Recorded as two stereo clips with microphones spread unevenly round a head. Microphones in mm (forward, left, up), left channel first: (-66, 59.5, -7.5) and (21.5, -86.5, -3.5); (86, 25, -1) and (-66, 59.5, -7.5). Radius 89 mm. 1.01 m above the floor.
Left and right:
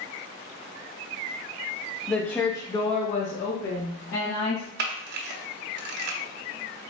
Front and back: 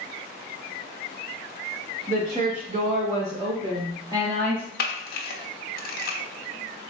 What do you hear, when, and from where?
2.1 s a woman speaking: 155° right, 0.9 m; by 4.7 s 95° left, 1.1 m
4.8 s a camera shutter: 40° right, 0.6 m